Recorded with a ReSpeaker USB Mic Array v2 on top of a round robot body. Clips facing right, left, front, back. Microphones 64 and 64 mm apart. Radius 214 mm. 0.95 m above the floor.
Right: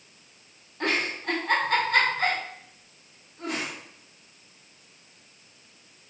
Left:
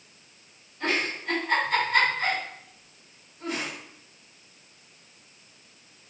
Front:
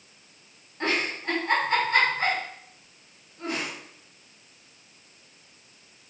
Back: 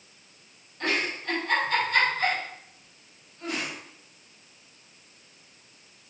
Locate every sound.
0.8 s a giggle: 65° right, 2.5 m